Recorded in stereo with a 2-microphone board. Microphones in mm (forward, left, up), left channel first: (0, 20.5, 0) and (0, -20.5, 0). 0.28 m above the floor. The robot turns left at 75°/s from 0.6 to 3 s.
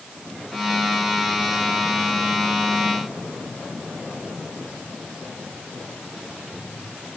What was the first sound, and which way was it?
Only background noise.